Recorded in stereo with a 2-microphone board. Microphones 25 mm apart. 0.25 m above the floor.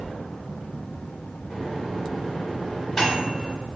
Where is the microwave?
10° left (ahead or behind), 1.1 m.